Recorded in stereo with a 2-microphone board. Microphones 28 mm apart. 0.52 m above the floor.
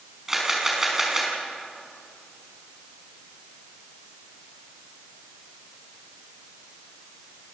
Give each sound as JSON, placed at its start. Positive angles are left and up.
{"t": 0.3, "sound": "a camera shutter", "side_deg": -15, "distance_m": 5.0}